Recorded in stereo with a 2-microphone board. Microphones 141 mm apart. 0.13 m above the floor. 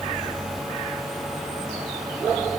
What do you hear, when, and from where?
Only background noise.